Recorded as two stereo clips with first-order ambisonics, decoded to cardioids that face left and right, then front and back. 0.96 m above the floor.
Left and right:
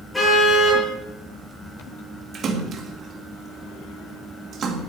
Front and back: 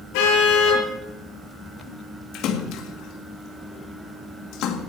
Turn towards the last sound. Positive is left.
turn(degrees=-35)